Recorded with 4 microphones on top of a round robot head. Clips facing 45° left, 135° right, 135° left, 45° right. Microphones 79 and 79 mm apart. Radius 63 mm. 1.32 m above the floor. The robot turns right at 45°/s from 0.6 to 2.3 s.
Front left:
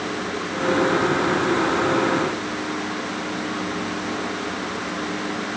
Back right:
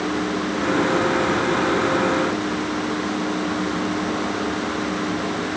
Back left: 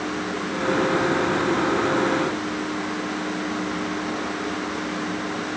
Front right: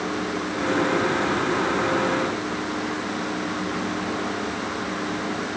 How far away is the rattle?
I don't hear a rattle.